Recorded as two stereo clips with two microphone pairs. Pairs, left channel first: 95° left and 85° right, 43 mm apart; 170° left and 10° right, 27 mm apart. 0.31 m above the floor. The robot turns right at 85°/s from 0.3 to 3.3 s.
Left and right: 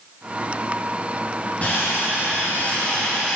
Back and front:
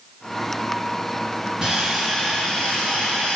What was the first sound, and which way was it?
Sawing, 50° left.